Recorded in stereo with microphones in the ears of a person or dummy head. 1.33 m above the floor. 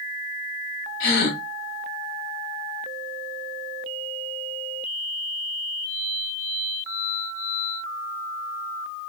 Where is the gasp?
55° left (ahead or behind), 1.5 m.